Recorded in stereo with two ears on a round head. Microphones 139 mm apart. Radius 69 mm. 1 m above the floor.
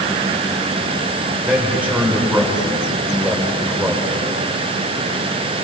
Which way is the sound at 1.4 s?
10° right (ahead or behind).